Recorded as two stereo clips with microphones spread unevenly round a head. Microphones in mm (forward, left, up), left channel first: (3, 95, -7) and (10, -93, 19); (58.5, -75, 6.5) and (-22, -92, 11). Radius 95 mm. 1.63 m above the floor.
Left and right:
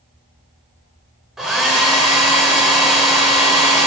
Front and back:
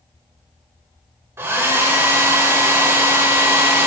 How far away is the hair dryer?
About 1.5 m.